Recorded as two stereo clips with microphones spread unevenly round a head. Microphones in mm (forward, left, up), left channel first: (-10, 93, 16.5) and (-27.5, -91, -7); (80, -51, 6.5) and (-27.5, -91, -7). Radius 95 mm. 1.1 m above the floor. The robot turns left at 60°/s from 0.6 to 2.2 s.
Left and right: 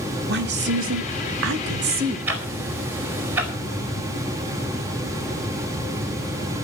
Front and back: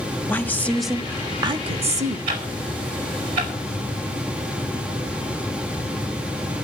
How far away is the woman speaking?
About 1.7 m.